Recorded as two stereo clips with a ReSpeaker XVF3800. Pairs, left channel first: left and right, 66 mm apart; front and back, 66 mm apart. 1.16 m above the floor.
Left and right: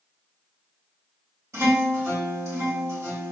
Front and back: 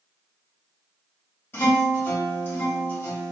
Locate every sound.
1.5 s a guitar: 55° right, 1.7 m